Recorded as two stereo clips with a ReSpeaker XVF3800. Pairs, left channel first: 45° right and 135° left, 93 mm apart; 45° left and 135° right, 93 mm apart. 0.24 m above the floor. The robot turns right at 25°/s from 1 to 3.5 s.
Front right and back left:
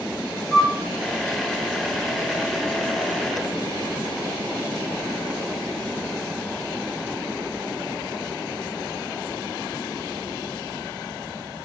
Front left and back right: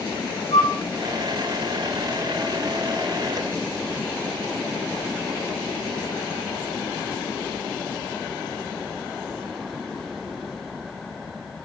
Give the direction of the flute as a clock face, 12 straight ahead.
11 o'clock.